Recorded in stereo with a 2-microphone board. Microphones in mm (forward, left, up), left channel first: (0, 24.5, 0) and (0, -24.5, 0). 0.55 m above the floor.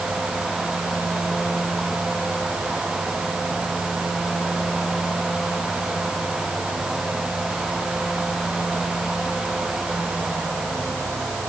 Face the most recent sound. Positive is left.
No sound to turn to.